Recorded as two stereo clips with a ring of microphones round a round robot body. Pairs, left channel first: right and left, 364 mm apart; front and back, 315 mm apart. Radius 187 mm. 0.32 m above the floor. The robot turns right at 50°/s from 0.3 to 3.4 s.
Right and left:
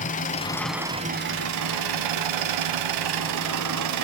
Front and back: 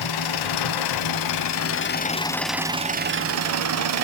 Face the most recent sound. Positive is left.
turn(degrees=135)